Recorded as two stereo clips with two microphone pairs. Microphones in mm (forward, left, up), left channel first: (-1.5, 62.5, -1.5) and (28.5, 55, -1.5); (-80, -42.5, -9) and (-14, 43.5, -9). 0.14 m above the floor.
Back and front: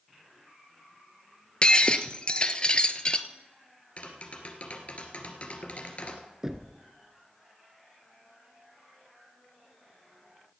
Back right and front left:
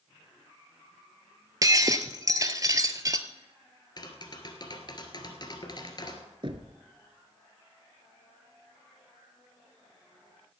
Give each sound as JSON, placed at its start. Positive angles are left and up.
{"t": 1.6, "sound": "breaking glass", "azimuth_deg": 110, "distance_m": 0.8}
{"t": 4.0, "sound": "tapping", "azimuth_deg": -165, "distance_m": 1.9}
{"t": 6.4, "sound": "knocking", "azimuth_deg": 50, "distance_m": 1.1}